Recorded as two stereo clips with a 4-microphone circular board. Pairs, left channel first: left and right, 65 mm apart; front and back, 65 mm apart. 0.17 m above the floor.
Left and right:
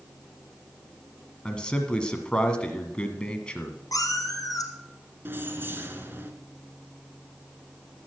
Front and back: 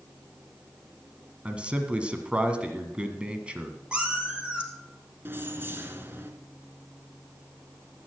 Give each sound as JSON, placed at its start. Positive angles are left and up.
{"t": 1.4, "sound": "a man speaking", "azimuth_deg": 140, "distance_m": 1.5}
{"t": 3.9, "sound": "a cat meowing", "azimuth_deg": 105, "distance_m": 2.0}
{"t": 5.2, "sound": "keys jangling", "azimuth_deg": -135, "distance_m": 1.5}